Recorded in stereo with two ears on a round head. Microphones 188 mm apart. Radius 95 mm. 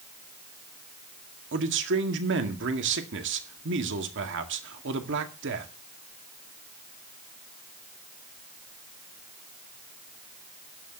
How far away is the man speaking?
About 2 m.